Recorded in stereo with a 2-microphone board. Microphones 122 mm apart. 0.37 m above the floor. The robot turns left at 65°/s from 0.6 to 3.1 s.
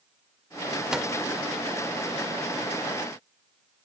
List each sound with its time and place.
0.9 s a microwave: 5° right (ahead or behind), 0.6 m; by 1.1 s centre (ahead or behind), 0.6 m